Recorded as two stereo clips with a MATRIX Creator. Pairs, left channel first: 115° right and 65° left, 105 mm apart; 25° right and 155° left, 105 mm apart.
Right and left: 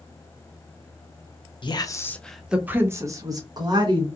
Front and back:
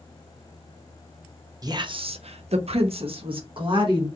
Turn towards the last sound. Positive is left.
turn(degrees=115)